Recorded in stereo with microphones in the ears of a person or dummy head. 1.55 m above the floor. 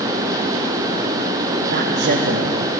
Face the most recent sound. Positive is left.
turn(degrees=-55)  # may be behind; listen again after turning